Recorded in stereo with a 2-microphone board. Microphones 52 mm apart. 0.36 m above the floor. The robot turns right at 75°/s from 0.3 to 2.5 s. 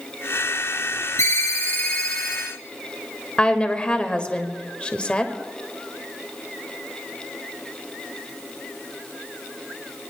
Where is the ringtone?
95° left, 3 m; by 2.5 s 165° right, 3 m.